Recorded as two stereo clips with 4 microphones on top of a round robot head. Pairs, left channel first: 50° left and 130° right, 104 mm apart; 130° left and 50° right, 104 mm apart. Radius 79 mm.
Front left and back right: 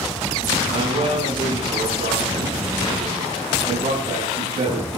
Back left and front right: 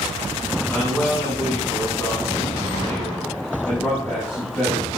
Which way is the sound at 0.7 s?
150° right.